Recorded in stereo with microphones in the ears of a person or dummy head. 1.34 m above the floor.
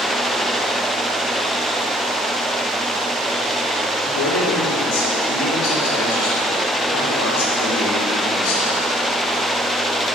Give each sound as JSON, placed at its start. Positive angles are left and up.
{"t": 4.0, "sound": "a man speaking", "side_deg": 80, "distance_m": 2.0}